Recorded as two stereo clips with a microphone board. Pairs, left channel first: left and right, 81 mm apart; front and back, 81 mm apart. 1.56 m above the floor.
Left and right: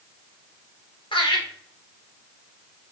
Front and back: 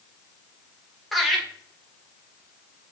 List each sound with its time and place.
1.1 s laughter: 90° left, 2.5 m